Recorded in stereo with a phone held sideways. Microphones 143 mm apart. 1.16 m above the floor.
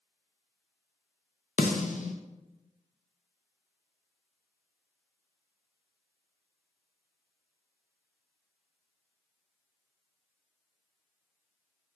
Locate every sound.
1.6 s a snare drum: 60° left (ahead or behind), 0.6 m